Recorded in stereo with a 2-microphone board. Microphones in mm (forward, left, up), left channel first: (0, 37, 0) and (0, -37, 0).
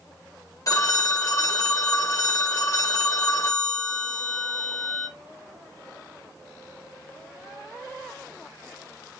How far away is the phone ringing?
About 0.6 m.